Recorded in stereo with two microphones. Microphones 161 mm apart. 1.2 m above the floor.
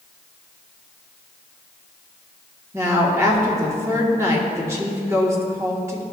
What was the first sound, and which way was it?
A woman speaking, 15° right (ahead or behind).